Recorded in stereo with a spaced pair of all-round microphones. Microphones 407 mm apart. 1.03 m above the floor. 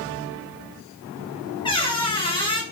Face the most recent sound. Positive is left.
turn(degrees=15)  # may be behind; listen again after turning